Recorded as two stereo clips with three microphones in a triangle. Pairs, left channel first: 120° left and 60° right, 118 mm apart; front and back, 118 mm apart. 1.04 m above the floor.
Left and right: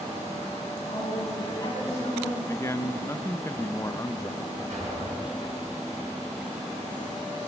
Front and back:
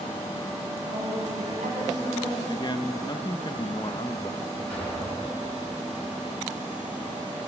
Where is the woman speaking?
Straight behind, 5.5 m.